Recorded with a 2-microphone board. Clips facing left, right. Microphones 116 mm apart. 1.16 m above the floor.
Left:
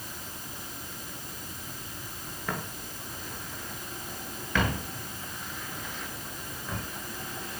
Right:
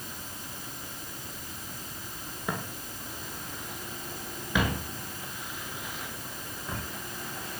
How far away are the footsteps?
About 6 m.